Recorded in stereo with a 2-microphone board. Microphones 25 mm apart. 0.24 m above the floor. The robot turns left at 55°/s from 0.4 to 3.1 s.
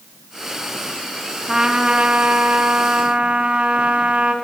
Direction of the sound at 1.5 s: 25° right.